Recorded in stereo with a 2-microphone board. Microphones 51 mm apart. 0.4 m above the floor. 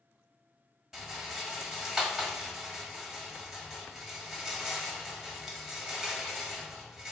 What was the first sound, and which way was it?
A rattle, 10° right (ahead or behind).